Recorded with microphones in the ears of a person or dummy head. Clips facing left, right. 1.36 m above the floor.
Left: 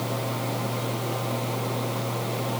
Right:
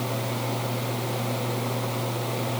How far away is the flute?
No flute in this recording.